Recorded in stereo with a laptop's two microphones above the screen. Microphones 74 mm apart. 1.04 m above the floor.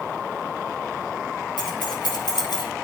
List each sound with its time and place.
1.6 s keys jangling: 85° left, 5 m; by 2.6 s 90° left, 4.5 m